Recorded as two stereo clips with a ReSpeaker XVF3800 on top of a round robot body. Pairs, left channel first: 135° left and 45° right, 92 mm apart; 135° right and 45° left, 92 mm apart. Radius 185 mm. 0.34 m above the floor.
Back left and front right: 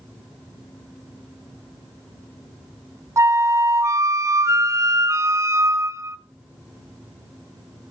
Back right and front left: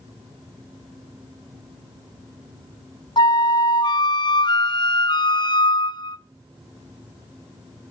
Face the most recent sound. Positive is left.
turn(degrees=-100)